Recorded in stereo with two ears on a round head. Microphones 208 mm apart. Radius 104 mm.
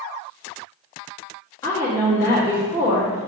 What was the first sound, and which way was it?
A woman speaking, 15° left (ahead or behind).